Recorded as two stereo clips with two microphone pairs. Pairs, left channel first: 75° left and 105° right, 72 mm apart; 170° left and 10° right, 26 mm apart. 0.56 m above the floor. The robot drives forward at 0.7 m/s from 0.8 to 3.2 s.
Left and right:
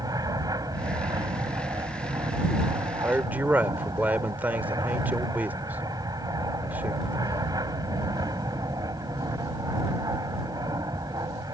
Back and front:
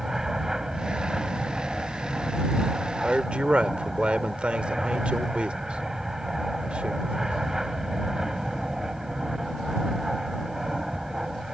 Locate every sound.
0.0 s an aircraft: 80° right; by 11.5 s 85° right
3.0 s a man speaking: 45° right